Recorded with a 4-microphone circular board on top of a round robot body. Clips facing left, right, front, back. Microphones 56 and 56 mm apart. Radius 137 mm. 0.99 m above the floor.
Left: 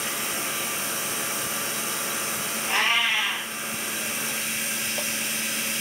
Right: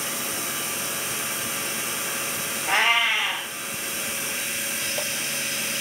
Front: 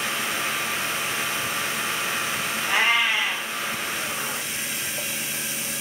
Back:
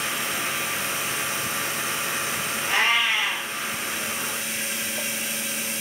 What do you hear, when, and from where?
2.7 s a cat meowing: 80° right, 0.7 m